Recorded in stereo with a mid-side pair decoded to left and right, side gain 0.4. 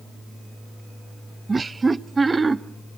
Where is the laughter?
30° right, 0.7 m.